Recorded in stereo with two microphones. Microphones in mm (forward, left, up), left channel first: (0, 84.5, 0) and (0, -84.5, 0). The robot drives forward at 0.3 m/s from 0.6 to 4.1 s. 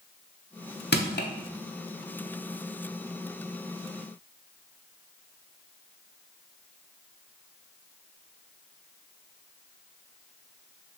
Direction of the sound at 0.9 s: 70° left (ahead or behind).